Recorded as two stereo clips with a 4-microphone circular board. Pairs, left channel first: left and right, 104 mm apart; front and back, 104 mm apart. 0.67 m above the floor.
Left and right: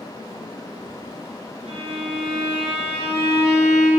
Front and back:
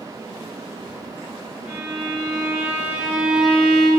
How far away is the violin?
About 2.5 m.